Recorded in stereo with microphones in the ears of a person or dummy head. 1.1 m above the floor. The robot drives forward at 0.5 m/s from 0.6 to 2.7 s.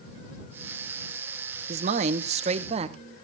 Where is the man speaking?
45° right (ahead or behind), 0.8 m; by 3.0 s 40° right (ahead or behind), 0.9 m.